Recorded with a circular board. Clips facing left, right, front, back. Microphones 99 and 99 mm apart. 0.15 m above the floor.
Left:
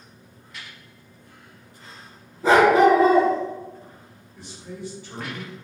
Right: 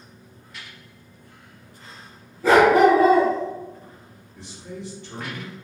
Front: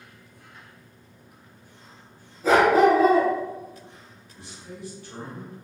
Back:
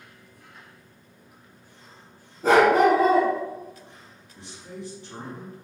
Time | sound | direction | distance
2.4 | a dog barking | 155° left | 0.9 m
4.4 | a man speaking | 160° left | 1.2 m